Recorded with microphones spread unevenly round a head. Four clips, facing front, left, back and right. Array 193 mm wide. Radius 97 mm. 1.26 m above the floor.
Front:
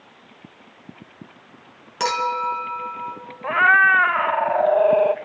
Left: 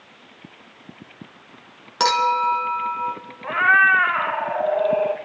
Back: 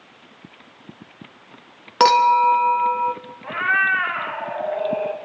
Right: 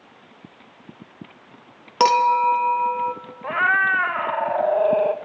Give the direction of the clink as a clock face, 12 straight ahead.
5 o'clock.